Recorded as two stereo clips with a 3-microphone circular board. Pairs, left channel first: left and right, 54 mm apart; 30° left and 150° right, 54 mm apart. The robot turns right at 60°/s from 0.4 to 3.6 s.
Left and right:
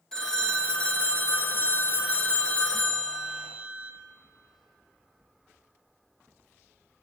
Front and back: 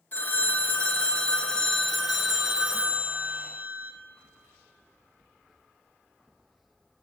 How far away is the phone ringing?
About 0.8 m.